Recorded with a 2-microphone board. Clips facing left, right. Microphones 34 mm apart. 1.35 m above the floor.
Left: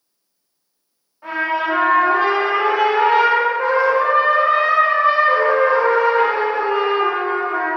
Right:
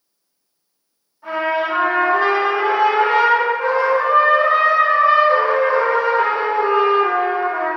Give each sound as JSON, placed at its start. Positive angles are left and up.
{"t": 1.2, "sound": "a trumpet", "side_deg": 40, "distance_m": 1.4}